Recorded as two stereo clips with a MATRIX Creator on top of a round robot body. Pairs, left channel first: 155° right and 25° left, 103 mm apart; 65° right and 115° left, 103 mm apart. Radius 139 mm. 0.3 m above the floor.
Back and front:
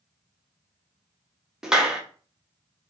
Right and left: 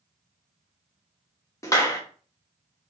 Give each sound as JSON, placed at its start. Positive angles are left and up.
{"t": 1.6, "sound": "a clap", "azimuth_deg": -55, "distance_m": 1.2}